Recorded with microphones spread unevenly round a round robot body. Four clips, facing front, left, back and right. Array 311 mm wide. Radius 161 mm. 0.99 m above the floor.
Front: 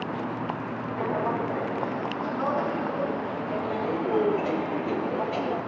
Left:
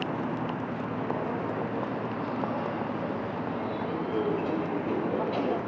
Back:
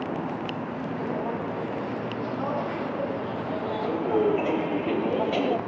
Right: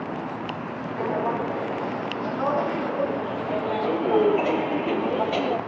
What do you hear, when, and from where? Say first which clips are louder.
1.0 s footsteps: right 8 dB, front 4 dB; 60° right, 2.5 m; by 5.6 s 165° right, 1.1 m